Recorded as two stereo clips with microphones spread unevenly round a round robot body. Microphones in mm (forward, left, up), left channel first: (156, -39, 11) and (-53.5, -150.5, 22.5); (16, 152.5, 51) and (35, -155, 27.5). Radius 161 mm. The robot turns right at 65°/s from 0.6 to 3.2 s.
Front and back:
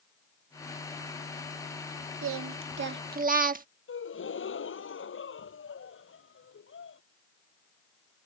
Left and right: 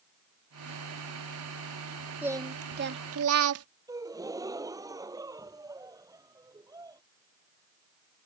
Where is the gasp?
5° right.